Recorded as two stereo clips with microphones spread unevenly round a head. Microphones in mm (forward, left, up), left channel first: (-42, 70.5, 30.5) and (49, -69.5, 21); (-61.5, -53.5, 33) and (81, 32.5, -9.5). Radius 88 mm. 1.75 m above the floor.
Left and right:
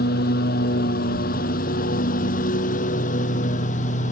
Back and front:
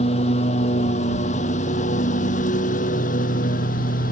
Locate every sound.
0.0 s a lawn mower: 155° left; by 4.1 s 170° left